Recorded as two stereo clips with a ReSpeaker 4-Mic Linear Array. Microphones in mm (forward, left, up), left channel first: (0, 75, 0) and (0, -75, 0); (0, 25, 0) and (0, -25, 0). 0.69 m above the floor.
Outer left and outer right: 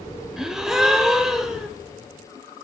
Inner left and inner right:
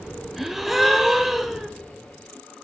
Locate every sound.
0.4 s a gasp: 5° right (ahead or behind), 0.6 m